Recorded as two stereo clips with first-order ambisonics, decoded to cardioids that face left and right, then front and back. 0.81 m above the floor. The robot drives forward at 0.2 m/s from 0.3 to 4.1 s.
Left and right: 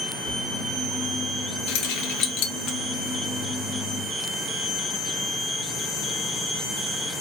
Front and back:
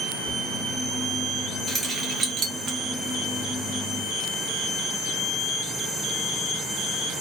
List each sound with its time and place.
0.3 s a thud: 70° right, 0.9 m; by 0.5 s 75° right, 0.9 m
1.7 s keys jangling: 110° left, 0.6 m; by 2.8 s 125° left, 0.7 m